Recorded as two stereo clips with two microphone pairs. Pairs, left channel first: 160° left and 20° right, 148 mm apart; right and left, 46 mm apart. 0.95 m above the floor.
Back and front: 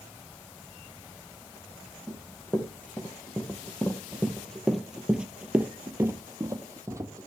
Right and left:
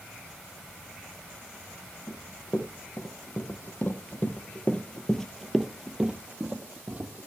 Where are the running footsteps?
120° right, 2.5 m; by 7.3 s 45° left, 1.5 m.